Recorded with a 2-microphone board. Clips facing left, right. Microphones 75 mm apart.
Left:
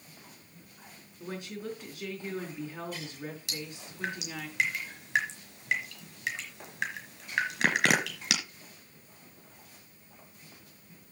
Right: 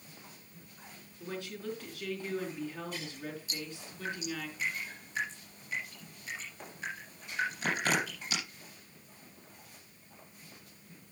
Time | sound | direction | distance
1.2 | a woman speaking | 15° left (ahead or behind) | 4.5 m
3.5 | dripping | 85° left | 4 m